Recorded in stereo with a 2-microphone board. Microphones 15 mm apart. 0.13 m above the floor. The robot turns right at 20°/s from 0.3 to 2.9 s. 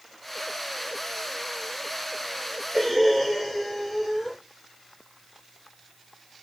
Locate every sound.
2.7 s breathing: centre (ahead or behind), 6.5 m; by 4.4 s 5° left (ahead or behind), 6.5 m